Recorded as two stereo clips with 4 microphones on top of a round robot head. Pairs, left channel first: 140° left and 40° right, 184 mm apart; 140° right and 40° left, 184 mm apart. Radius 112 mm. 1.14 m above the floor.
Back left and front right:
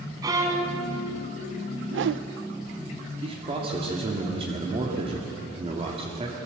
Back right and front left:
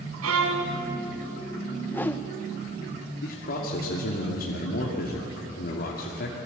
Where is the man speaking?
100° right, 2.5 m.